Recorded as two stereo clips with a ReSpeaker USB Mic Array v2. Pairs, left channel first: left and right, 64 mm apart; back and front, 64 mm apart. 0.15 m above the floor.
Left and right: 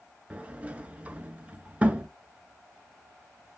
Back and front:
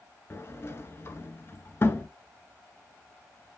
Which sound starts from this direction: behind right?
A sliding door, at 0.3 s.